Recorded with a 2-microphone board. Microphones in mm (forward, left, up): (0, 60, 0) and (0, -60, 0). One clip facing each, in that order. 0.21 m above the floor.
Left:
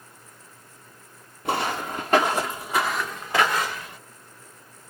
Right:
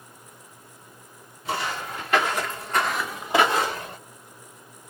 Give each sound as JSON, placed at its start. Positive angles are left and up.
{"t": 1.4, "sound": "footsteps", "side_deg": 60, "distance_m": 1.2}